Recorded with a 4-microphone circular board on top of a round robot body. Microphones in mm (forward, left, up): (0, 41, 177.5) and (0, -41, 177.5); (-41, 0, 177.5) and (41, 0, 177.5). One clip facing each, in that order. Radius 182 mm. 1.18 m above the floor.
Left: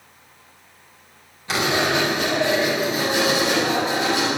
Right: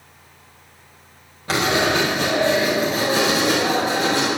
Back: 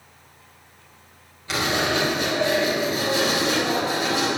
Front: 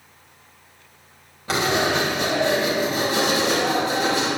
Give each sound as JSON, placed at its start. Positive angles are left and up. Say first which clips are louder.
{"t": 1.5, "sound": "writing", "louder": "right 2 dB, front 2 dB", "azimuth_deg": -50, "distance_m": 6.5}